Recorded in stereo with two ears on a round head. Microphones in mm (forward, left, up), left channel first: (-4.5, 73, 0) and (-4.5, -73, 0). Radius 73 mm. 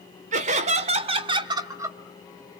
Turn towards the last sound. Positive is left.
turn(degrees=-15)  # may be behind; listen again after turning